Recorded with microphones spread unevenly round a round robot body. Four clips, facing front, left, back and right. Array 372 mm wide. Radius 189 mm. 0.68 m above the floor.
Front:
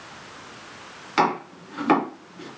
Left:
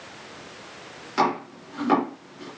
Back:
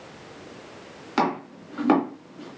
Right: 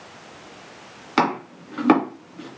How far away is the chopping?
About 2 m.